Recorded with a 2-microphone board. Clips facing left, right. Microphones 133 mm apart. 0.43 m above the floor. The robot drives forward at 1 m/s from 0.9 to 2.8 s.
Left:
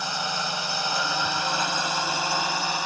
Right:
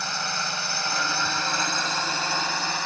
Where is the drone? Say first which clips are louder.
Left 2 dB; 15° left (ahead or behind).